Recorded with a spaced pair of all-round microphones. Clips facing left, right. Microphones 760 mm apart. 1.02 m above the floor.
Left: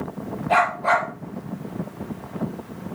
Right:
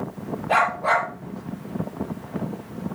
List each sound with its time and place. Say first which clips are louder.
0.5 s a dog barking: left 2 dB; 10° right (ahead or behind), 5.5 m